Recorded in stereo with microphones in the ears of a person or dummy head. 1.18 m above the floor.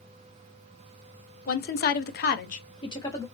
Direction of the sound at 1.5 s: 45° left (ahead or behind).